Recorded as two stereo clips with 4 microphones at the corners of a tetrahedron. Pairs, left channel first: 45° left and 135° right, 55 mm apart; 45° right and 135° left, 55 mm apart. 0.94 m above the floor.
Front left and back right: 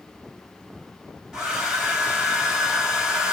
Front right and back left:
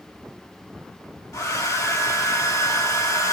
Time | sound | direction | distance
1.3 | a hair dryer | 55° right | 3.5 m